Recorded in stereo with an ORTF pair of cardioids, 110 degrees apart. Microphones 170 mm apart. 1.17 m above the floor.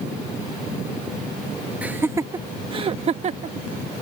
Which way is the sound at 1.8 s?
10° right.